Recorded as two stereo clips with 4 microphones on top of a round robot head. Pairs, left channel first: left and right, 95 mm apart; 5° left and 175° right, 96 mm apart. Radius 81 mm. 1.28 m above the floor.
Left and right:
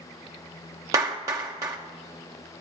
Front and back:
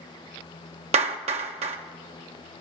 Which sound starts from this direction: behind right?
A clap, at 0.9 s.